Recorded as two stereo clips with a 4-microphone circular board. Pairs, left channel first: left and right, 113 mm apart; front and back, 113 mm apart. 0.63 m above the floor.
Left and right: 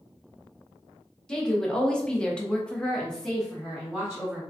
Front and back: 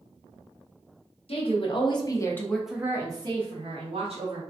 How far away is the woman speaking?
About 1.0 m.